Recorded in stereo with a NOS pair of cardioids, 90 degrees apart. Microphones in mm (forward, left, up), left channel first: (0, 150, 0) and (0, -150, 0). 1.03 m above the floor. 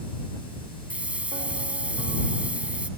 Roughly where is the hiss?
Ahead.